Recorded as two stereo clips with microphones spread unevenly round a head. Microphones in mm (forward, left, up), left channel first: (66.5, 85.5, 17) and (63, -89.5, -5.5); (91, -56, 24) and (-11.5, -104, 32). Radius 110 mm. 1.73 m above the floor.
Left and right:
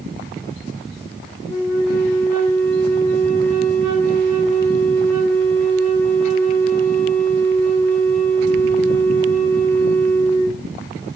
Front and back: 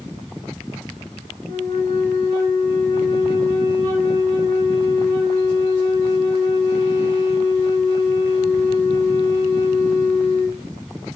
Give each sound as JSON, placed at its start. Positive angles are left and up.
{"t": 1.4, "sound": "a flute", "azimuth_deg": -115, "distance_m": 2.0}